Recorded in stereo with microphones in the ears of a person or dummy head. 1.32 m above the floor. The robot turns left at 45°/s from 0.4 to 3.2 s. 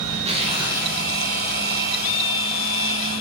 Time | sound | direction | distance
0.1 | tearing paper | 145° right | 1.2 m